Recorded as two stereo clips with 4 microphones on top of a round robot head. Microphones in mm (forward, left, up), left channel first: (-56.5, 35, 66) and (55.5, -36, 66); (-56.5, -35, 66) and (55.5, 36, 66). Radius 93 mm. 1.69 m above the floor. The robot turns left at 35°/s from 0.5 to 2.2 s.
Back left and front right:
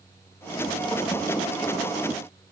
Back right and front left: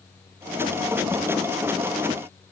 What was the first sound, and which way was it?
Only background noise.